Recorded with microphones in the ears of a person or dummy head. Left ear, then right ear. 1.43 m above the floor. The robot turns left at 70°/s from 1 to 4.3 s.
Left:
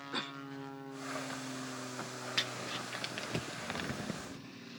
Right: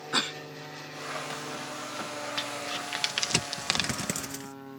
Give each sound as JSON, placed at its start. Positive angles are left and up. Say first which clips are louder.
{"t": 0.1, "sound": "a cough", "louder": "right 11 dB", "side_deg": -40}
{"t": 2.4, "sound": "crumpling", "louder": "right 1 dB", "side_deg": 15}